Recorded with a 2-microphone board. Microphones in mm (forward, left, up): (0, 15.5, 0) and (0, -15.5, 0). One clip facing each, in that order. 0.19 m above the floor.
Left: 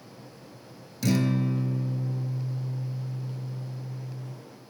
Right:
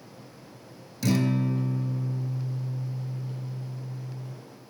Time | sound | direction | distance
1.0 | a guitar | centre (ahead or behind) | 0.8 m